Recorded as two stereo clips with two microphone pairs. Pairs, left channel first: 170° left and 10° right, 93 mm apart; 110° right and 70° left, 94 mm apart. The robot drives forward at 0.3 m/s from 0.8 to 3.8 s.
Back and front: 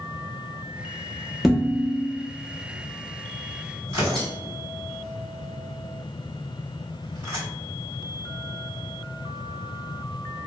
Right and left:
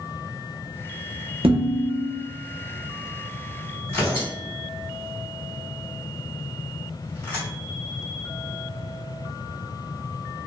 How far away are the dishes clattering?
About 0.7 m.